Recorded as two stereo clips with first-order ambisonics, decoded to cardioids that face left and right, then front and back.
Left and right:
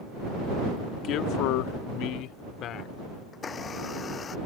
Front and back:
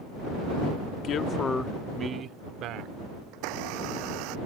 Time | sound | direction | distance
1.0 | a man speaking | 45° left | ?
3.3 | a blender | 160° left | ?